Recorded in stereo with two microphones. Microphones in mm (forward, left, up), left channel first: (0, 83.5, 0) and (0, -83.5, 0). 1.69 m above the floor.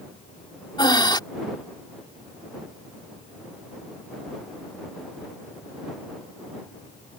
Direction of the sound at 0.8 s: 25° left (ahead or behind).